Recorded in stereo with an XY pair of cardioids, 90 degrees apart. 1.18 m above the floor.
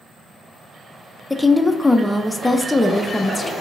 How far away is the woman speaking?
About 0.5 m.